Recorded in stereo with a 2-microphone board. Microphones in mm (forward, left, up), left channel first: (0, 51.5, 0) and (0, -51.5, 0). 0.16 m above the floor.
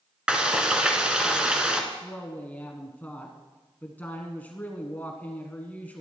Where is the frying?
10° right (ahead or behind), 1.3 m.